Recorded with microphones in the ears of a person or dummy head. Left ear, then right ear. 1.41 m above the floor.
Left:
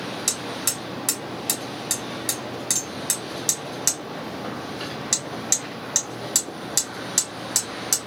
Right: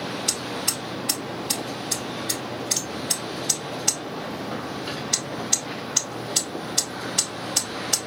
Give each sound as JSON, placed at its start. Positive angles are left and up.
{"t": 0.3, "sound": "hammering", "side_deg": 50, "distance_m": 3.0}